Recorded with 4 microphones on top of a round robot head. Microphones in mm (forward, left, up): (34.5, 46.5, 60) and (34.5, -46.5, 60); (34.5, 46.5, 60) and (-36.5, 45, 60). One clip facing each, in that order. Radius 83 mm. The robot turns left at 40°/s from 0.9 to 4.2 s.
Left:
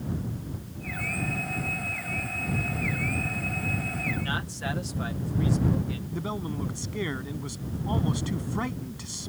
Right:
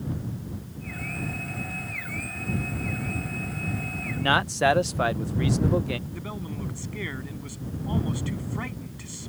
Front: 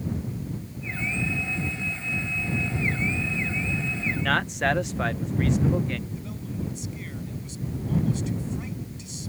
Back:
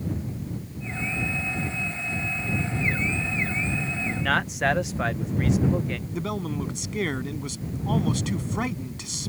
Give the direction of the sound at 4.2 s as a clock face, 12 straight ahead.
3 o'clock.